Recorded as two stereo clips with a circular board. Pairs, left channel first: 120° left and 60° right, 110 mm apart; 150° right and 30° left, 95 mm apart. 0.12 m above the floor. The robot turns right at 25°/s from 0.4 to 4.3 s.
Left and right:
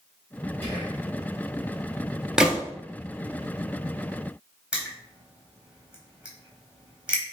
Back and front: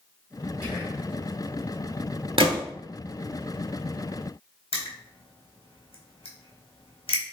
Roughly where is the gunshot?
Ahead.